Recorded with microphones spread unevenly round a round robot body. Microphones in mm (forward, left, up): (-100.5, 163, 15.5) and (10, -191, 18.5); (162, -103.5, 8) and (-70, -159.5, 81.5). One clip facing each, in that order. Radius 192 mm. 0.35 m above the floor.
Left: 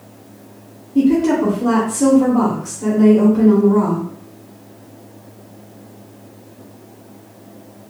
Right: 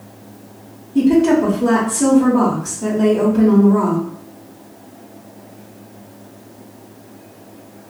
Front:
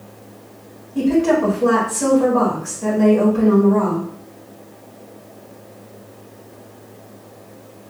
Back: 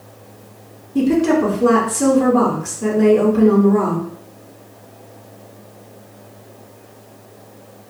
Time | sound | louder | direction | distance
0.9 | a woman speaking | right 1 dB, back 1 dB | 155° right | 1.0 m